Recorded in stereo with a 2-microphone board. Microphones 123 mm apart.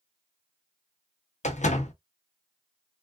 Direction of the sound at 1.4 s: 75° left (ahead or behind).